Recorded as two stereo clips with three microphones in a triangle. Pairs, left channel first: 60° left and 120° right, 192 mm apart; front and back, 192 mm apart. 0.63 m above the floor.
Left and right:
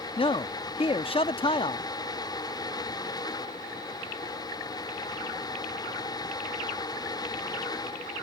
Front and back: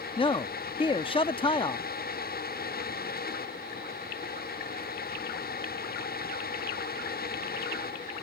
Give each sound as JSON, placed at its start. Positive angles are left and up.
{"t": 0.2, "sound": "a man speaking", "azimuth_deg": 30}